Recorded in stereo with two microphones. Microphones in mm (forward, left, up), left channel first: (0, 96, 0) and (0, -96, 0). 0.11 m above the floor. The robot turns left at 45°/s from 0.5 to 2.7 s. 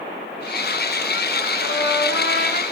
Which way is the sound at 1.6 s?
100° left.